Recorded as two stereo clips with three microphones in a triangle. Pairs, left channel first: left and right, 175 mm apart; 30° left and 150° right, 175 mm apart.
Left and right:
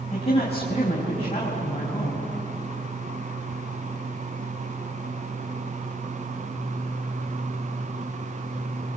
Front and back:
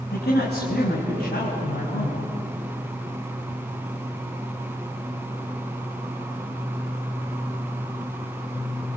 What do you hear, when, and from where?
0.1 s a man speaking: 35° left, 5.5 m